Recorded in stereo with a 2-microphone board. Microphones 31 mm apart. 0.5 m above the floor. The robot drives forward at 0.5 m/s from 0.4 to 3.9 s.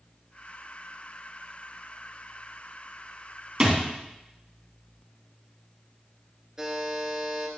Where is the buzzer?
15° right (ahead or behind), 1.7 m.